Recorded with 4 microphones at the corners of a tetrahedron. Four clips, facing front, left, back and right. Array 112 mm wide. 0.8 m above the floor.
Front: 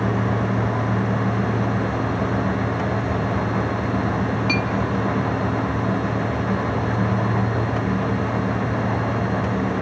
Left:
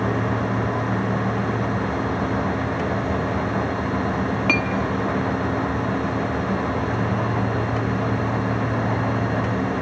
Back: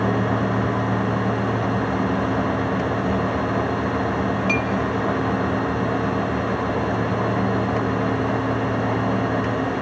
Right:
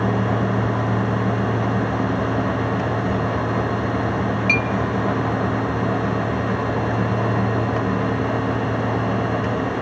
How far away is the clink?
About 1.1 m.